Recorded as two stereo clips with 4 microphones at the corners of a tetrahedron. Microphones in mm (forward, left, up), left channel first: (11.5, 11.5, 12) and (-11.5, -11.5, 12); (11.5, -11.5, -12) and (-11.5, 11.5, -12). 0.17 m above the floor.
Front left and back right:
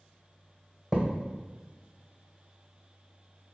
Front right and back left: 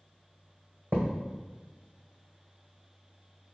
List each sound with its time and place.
0.9 s a thud: 155° left, 1.9 m